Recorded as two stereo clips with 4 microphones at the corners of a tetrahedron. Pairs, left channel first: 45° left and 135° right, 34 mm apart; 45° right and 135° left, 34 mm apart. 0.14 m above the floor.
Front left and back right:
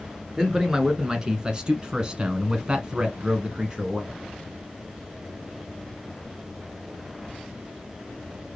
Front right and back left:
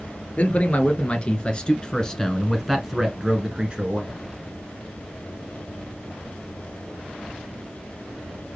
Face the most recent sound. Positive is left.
turn(degrees=175)